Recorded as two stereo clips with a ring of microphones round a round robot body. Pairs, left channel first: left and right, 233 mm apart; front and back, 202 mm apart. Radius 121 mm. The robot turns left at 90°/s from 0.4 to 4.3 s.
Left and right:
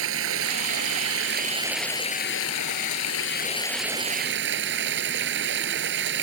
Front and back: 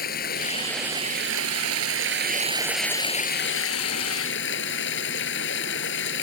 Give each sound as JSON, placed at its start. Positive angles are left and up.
{"t": 0.0, "sound": "running water", "azimuth_deg": -55}